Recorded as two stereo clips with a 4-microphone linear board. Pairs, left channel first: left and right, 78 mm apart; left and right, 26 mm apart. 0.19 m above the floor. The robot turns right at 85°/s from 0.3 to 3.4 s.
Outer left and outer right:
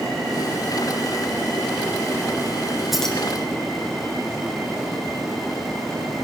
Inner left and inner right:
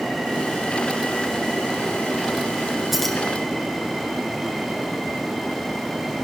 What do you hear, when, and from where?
2.9 s keys jangling: centre (ahead or behind), 1.8 m; by 3.2 s 20° left (ahead or behind), 1.8 m